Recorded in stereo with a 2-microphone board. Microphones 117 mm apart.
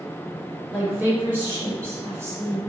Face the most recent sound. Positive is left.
turn(degrees=-30)  # may be behind; listen again after turning